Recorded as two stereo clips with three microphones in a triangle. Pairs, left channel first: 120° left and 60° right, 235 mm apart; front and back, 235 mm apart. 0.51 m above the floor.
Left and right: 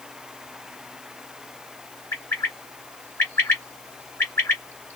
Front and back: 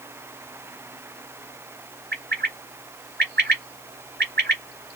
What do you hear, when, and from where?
2.1 s a bird: 165° right, 1.7 m